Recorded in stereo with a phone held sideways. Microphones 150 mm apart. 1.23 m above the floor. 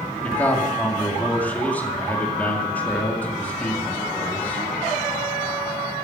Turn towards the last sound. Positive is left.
turn(degrees=10)  # may be behind; listen again after turning